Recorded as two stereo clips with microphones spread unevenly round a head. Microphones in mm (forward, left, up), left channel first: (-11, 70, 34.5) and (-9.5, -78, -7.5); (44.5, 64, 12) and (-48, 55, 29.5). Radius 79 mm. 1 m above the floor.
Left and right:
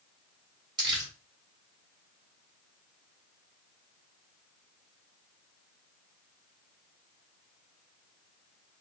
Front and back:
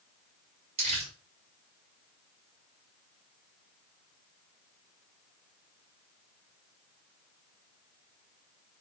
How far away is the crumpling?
About 2 m.